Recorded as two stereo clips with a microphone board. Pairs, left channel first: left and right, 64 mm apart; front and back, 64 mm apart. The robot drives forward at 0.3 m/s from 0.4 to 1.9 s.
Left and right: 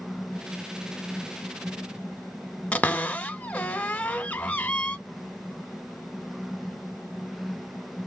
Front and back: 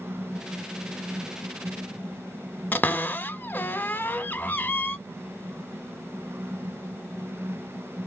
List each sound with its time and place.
2.7 s a cupboard door: 40° left, 0.5 m